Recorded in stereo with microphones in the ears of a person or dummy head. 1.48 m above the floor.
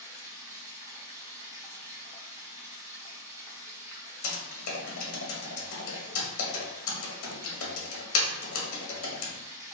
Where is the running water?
20° right (ahead or behind), 0.7 m.